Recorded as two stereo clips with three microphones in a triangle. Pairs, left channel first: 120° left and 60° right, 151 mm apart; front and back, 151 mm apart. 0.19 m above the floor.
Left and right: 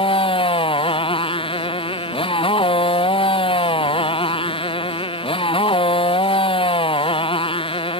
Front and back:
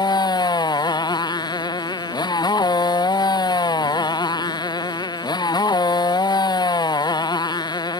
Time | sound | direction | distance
0.0 | a motorcycle | 65° left | ?